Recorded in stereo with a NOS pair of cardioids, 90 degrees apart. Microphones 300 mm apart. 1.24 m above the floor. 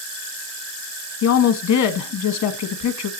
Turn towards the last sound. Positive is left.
turn(degrees=65)